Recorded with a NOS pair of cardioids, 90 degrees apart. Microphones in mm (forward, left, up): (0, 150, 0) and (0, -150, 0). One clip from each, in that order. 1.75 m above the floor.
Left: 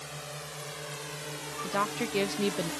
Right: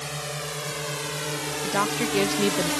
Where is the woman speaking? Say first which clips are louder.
Right 5 dB; 25° right.